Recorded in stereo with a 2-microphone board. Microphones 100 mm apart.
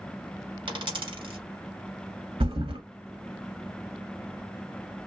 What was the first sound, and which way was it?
A dropped coin, 55° right (ahead or behind).